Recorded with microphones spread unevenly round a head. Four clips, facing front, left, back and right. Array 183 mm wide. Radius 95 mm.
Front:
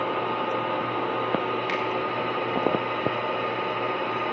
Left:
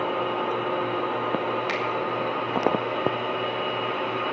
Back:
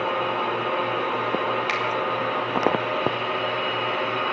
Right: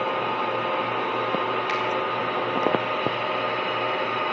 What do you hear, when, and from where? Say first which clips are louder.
1.7 s a finger snap: right 2 dB, back 1 dB; 105° left, 3 m